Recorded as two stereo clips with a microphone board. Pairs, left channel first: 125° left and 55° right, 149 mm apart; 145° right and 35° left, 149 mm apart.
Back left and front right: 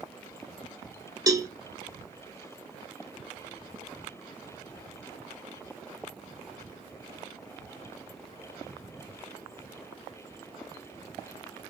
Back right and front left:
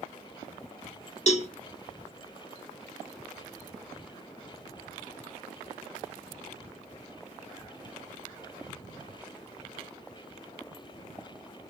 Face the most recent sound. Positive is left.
turn(degrees=-115)